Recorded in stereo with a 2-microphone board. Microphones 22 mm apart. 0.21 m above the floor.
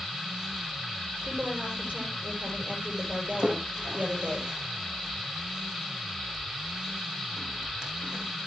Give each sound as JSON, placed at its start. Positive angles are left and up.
{"t": 1.2, "sound": "a woman speaking", "side_deg": -75, "distance_m": 5.5}
{"t": 3.4, "sound": "a splash", "side_deg": -40, "distance_m": 3.0}